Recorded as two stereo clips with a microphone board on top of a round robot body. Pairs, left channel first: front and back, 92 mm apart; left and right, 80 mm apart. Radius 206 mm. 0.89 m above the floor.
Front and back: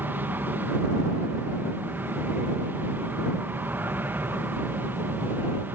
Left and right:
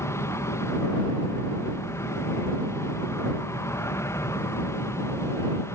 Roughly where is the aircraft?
Behind left.